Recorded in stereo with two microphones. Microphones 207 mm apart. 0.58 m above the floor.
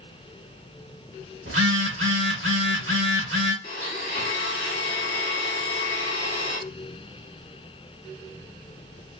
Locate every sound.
1.5 s a phone buzzing: 80° right, 0.9 m
3.6 s a blender: 40° left (ahead or behind), 1.2 m